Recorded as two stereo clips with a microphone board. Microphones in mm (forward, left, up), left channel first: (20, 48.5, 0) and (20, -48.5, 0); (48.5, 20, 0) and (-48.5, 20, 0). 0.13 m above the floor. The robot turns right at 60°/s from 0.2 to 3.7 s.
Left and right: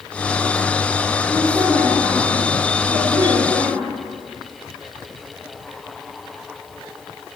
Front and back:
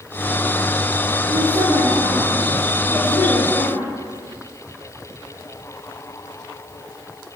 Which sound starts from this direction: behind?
A woman speaking, at 1.3 s.